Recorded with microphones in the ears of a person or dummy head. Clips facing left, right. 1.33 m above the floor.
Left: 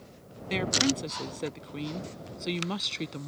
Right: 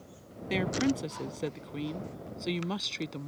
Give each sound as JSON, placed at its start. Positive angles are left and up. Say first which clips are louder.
{"t": 0.5, "sound": "a woman speaking", "louder": "even", "side_deg": -5}